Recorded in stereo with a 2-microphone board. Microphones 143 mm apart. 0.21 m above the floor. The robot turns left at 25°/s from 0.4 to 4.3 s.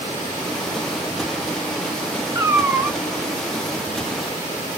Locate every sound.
2.4 s a cat meowing: 25° right (ahead or behind), 1.2 m; by 3.0 s 15° right (ahead or behind), 1.2 m